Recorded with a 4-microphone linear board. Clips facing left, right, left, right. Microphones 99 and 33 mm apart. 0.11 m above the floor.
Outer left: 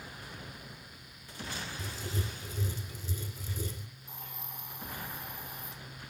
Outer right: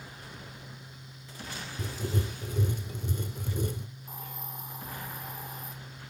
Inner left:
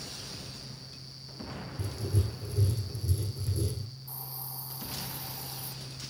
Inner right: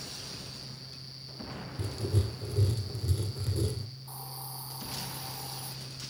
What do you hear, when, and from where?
1.8 s writing: 60° right (ahead or behind), 3 m
4.1 s a hiss: 45° right (ahead or behind), 3.5 m